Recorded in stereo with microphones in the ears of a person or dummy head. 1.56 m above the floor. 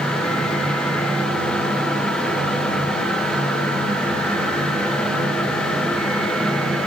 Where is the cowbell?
I don't hear a cowbell.